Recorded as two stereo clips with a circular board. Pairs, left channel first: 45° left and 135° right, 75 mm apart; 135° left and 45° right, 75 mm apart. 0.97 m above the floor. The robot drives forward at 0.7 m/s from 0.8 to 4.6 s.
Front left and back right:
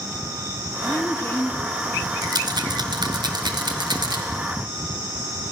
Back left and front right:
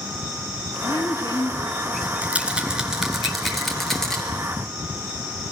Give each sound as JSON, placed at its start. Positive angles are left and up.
{"t": 0.8, "sound": "a woman speaking", "azimuth_deg": 95, "distance_m": 2.0}
{"t": 2.2, "sound": "a rattle", "azimuth_deg": -115, "distance_m": 2.0}